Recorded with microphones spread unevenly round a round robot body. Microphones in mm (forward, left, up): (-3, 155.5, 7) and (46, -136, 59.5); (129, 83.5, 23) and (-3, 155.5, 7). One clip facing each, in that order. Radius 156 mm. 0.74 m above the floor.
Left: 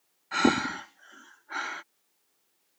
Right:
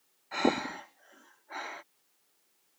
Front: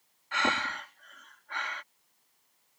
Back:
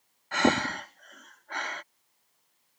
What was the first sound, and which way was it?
Breathing, 135° left.